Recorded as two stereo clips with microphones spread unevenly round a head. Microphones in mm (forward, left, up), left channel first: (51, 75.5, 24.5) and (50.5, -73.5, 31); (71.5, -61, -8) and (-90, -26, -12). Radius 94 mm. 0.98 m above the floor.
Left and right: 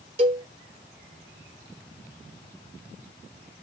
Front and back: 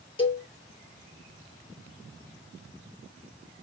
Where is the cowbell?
55° right, 1.0 m.